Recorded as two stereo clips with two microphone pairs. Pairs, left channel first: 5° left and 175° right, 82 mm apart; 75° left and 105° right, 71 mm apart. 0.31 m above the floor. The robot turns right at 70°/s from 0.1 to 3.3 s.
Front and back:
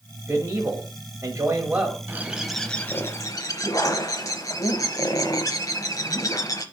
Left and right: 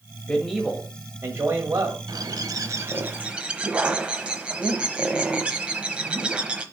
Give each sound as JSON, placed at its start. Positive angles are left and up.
{"t": 0.3, "sound": "a man speaking", "azimuth_deg": 140, "distance_m": 1.3}
{"t": 2.1, "sound": "a bird", "azimuth_deg": -115, "distance_m": 0.8}